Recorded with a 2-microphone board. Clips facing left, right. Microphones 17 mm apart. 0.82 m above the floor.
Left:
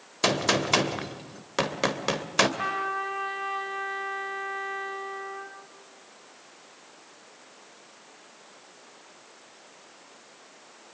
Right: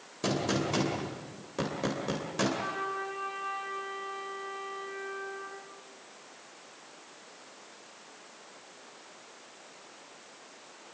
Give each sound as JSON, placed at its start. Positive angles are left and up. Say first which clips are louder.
{"t": 0.2, "sound": "a gunshot", "louder": "left 6 dB", "side_deg": 65, "distance_m": 2.5}
{"t": 2.6, "sound": "a trumpet", "louder": "left 5 dB", "side_deg": 65, "distance_m": 5.5}